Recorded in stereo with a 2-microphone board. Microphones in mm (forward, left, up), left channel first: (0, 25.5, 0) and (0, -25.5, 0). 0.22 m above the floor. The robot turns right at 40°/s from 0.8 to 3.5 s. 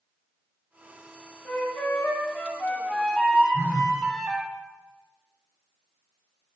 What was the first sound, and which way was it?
A flute, 110° left.